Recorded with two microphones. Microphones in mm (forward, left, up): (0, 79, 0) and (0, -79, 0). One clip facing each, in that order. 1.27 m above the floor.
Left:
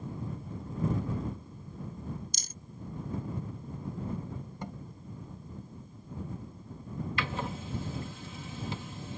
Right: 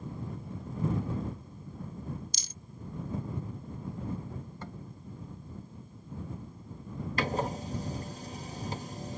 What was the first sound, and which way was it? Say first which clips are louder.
A rattle: left 1 dB; 50° left (ahead or behind).